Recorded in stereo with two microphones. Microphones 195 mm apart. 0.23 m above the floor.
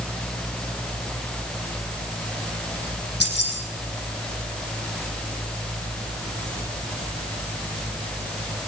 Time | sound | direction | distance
3.2 | keys jangling | 65° left (ahead or behind) | 7 m